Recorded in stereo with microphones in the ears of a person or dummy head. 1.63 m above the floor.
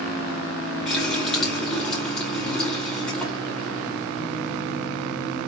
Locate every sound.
0.9 s a running tap: 5° left (ahead or behind), 2 m